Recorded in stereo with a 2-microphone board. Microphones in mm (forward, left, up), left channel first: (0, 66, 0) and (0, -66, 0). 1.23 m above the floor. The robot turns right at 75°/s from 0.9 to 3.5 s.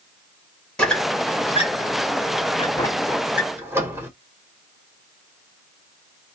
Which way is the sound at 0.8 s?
5° left (ahead or behind).